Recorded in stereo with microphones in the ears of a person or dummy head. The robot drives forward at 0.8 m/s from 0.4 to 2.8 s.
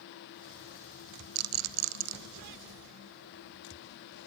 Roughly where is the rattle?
Right.